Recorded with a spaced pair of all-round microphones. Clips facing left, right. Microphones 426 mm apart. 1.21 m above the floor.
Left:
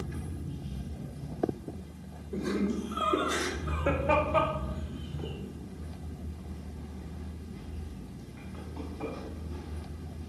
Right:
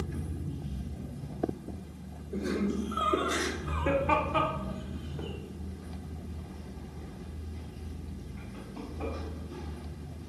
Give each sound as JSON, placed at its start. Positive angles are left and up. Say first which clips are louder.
{"t": 2.3, "sound": "laughter", "louder": "even", "side_deg": 10, "distance_m": 4.0}